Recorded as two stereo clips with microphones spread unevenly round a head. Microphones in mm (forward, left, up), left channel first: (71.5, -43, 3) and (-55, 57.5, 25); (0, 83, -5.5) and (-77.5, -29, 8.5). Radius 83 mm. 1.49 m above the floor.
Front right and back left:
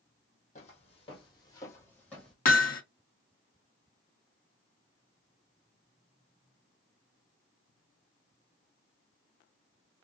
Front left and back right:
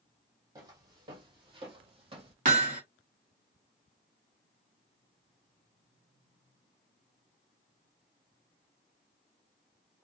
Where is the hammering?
80° right, 1.0 m.